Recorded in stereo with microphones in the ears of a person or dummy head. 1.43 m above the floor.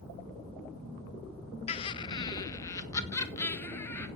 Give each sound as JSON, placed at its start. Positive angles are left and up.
{"t": 1.7, "sound": "laughter", "side_deg": 30, "distance_m": 0.6}